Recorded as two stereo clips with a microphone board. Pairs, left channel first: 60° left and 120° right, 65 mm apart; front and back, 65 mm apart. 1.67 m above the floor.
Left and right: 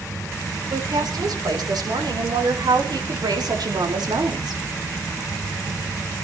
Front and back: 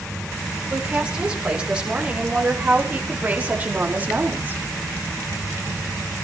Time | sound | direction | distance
0.7 | a woman speaking | 100° right | 7 m